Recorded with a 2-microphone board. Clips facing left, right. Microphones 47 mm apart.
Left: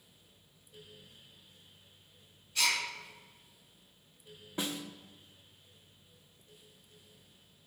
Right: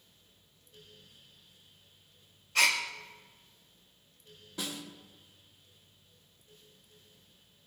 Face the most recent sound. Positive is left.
turn(degrees=30)  # may be behind; listen again after turning